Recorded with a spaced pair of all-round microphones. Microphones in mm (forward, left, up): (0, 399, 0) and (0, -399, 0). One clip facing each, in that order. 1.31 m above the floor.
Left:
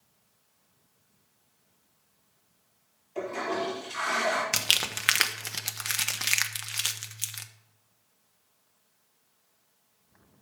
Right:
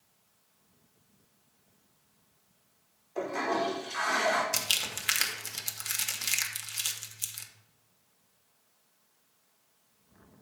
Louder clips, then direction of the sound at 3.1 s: Even; 50° left (ahead or behind).